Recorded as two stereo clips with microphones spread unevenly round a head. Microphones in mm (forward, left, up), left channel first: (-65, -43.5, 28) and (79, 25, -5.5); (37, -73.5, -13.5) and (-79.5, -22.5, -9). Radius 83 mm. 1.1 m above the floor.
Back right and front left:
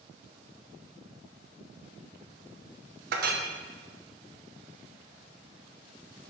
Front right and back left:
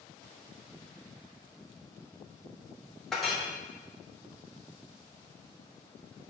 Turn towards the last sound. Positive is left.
turn(degrees=65)